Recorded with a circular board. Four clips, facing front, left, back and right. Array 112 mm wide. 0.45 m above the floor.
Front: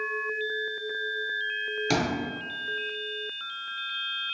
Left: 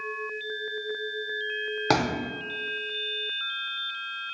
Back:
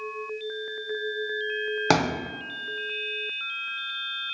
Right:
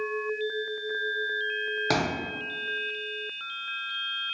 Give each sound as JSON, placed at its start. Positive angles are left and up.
{"t": 1.9, "sound": "a thud", "azimuth_deg": 160, "distance_m": 0.6}